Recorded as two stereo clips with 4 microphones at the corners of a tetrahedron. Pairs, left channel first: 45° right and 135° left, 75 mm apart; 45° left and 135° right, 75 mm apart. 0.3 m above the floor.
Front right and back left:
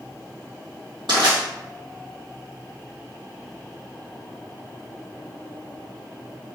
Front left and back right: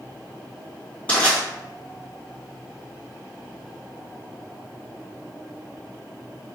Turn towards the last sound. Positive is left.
turn(degrees=115)